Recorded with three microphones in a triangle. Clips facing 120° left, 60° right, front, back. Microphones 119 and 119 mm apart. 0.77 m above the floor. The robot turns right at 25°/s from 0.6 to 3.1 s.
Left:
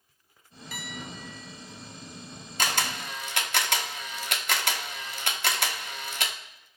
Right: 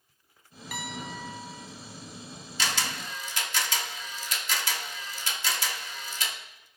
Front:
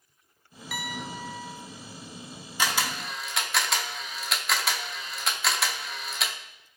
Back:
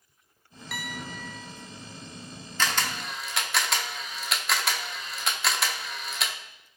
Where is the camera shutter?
75° left, 0.7 m; by 6.4 s 90° left, 0.7 m.